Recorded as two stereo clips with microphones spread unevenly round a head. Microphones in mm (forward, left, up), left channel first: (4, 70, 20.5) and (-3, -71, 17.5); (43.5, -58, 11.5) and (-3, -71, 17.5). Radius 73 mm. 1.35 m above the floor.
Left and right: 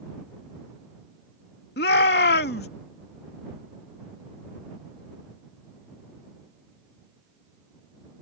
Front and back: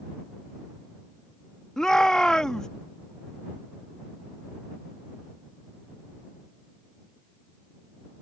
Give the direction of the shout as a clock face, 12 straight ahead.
9 o'clock.